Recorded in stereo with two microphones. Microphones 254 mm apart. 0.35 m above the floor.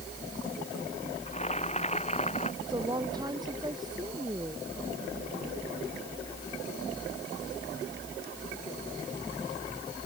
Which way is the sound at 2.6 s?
15° right (ahead or behind).